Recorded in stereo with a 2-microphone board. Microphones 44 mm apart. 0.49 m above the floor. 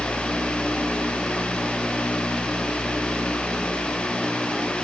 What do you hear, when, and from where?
Only background noise.